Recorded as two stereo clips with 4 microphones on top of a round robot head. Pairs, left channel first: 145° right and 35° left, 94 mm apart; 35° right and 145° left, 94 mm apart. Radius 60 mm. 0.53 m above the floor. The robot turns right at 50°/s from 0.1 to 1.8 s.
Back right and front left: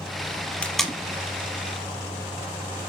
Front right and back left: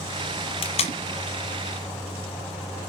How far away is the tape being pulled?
About 1.2 m.